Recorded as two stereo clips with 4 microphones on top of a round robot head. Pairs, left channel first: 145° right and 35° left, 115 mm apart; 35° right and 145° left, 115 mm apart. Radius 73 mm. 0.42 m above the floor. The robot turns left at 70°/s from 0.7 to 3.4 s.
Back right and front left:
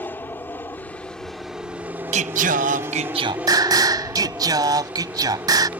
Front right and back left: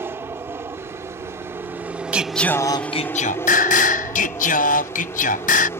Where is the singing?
65° left; by 5.7 s 25° right.